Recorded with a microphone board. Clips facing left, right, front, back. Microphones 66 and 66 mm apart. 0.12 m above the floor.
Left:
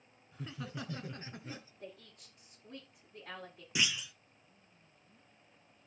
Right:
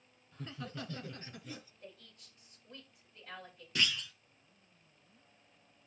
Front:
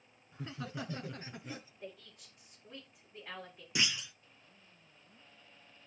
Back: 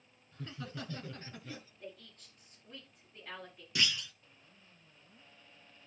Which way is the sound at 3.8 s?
35° left.